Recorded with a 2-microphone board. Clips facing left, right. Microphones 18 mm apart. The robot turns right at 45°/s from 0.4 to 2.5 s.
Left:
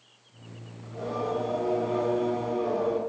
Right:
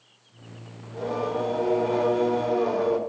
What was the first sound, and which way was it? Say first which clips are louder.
Singing: right 3 dB; 130° right.